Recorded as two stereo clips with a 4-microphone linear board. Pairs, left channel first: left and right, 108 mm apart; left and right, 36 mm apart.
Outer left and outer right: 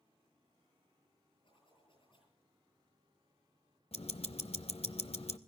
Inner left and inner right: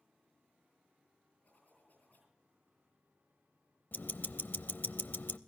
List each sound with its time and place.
1.4 s a zipper: 55° left (ahead or behind), 9 m
3.9 s ticking: 70° left (ahead or behind), 0.6 m